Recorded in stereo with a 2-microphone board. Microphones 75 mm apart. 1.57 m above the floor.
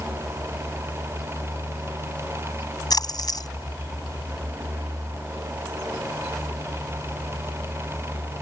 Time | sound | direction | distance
2.9 | a splash | 65° left (ahead or behind) | ?